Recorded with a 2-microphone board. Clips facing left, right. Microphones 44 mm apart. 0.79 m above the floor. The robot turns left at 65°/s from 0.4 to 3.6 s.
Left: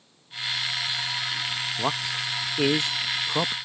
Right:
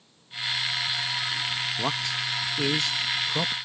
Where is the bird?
I don't hear a bird.